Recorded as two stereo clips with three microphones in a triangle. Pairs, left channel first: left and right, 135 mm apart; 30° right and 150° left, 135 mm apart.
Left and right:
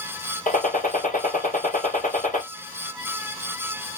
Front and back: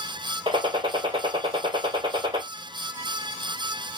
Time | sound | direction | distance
0.5 | a gunshot | 100° left | 1.6 m